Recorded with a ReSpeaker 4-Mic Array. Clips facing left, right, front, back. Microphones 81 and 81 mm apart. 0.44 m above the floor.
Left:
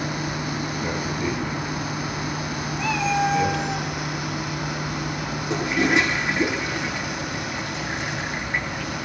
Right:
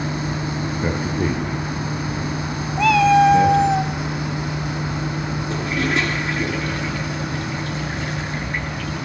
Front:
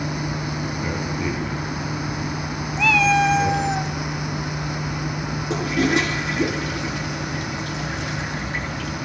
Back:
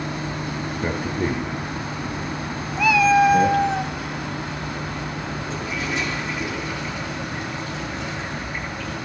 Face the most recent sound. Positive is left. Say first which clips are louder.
# left 2 dB, front 9 dB
turn(degrees=20)